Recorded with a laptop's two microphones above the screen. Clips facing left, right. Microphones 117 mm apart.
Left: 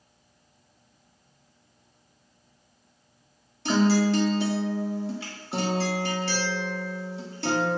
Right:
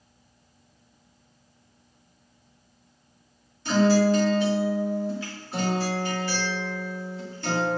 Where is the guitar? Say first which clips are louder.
Right 2 dB; 75° left (ahead or behind), 1.6 m.